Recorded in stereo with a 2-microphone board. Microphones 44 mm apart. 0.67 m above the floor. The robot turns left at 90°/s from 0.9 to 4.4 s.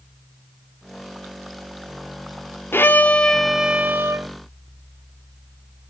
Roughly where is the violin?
Ahead left.